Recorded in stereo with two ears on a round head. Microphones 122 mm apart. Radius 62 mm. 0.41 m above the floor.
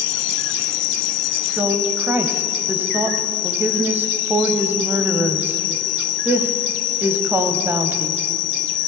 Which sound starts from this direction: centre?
A woman speaking, at 1.6 s.